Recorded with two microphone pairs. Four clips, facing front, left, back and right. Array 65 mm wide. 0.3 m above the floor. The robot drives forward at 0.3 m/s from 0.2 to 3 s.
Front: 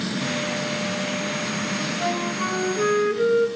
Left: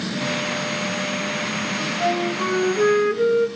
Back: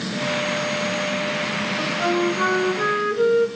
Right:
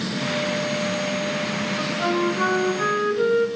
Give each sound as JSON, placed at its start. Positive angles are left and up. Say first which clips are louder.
{"t": 1.8, "sound": "a flute", "louder": "left 1 dB, back 7 dB", "azimuth_deg": -130, "distance_m": 2.5}